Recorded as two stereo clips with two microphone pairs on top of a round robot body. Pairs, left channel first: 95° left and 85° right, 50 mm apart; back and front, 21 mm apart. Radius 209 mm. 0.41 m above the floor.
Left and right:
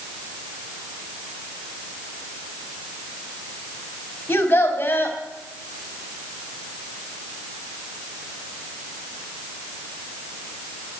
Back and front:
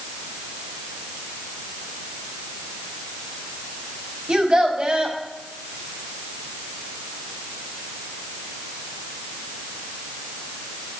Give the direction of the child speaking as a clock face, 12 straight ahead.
11 o'clock.